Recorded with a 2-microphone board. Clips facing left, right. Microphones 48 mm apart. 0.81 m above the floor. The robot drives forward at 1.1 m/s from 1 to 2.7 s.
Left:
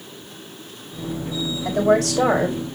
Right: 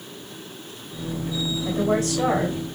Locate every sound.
1.6 s a woman speaking: 75° left (ahead or behind), 3.5 m